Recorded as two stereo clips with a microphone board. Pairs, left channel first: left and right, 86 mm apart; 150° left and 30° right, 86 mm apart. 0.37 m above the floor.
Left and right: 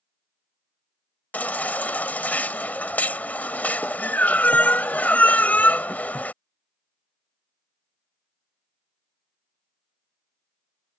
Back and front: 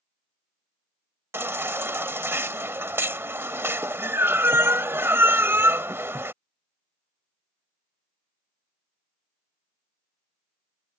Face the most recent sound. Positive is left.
turn(degrees=25)